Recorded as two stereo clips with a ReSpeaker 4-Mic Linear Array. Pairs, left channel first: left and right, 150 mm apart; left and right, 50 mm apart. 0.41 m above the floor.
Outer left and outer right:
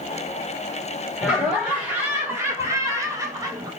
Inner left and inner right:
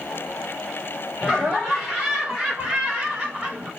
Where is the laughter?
5° right (ahead or behind), 1.5 m; by 3.7 s 25° right (ahead or behind), 1.6 m.